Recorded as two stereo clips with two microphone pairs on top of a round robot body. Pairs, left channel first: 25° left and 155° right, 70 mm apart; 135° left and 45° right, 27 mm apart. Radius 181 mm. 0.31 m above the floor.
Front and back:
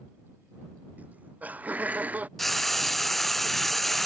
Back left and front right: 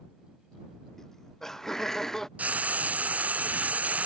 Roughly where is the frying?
Ahead right.